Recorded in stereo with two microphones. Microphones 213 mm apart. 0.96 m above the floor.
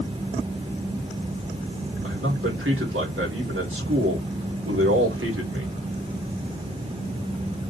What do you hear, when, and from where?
2.0 s a man speaking: 75° right (ahead or behind), 3 m